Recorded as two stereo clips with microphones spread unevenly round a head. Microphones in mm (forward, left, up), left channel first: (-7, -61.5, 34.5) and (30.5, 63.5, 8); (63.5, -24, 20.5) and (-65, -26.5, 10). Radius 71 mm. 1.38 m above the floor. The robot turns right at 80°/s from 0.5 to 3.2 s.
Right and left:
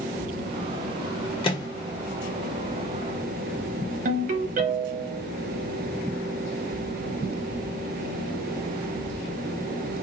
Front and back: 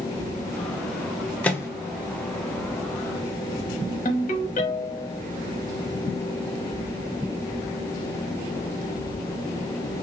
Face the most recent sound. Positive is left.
turn(degrees=45)